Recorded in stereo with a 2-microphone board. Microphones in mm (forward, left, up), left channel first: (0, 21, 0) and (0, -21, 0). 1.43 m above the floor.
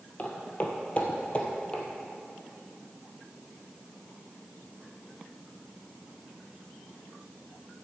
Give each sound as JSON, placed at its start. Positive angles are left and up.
{"t": 0.2, "sound": "footsteps", "side_deg": 35, "distance_m": 1.7}